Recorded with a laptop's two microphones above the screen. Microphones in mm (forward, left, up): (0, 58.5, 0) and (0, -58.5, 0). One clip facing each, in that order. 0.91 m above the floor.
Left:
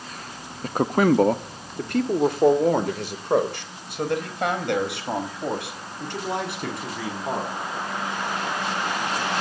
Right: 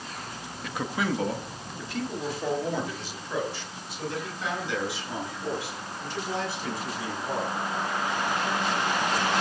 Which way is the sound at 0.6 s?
45° left (ahead or behind).